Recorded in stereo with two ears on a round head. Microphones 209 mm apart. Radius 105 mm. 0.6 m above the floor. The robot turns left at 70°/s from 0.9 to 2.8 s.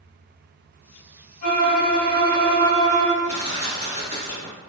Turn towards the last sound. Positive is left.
turn(degrees=30)  # may be behind; listen again after turning